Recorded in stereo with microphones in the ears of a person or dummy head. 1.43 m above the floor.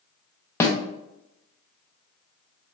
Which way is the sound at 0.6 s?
15° left (ahead or behind).